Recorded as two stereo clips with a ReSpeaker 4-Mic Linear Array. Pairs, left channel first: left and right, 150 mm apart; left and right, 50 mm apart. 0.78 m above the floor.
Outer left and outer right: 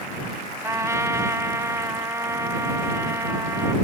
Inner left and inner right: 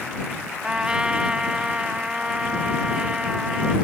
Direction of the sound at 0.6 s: 20° right (ahead or behind).